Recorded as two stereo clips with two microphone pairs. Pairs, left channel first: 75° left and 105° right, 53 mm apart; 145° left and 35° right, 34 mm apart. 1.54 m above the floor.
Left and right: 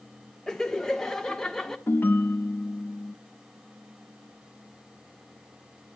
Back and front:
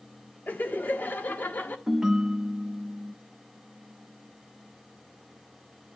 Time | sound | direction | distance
0.5 | laughter | 155° left | 1.4 m
1.9 | a ringtone | 40° left | 0.8 m